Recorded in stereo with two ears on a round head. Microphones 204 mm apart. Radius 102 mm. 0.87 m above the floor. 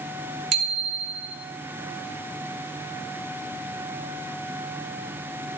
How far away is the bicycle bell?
About 3 m.